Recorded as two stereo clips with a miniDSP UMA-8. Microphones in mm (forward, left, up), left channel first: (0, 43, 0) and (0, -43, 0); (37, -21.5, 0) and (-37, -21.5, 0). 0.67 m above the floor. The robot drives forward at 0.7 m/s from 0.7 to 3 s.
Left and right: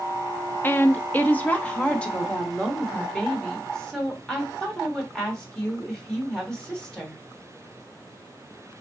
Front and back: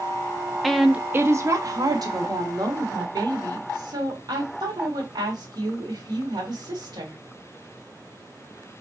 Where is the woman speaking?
90° left, 0.5 m; by 7.2 s 170° left, 1.7 m.